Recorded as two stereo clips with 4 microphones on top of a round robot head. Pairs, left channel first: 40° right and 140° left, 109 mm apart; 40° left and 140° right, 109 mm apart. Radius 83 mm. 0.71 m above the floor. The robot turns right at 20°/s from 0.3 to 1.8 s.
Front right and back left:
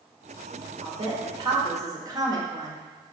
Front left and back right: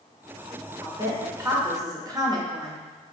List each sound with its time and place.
0.8 s a woman speaking: 160° left, 1.0 m; by 2.8 s straight behind, 1.0 m